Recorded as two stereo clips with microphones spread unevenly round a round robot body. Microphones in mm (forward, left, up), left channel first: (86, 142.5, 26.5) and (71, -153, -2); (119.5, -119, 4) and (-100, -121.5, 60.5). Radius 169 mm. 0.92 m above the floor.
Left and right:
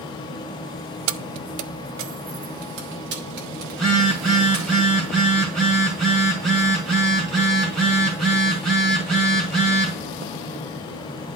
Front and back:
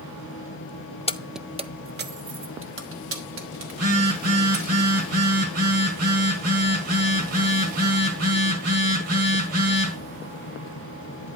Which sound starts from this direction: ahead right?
Keys jangling, at 1.1 s.